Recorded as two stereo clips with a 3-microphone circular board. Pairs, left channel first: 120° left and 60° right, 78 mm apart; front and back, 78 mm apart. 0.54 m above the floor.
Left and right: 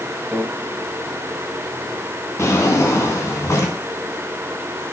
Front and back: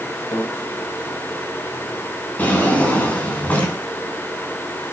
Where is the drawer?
65° left, 3 m.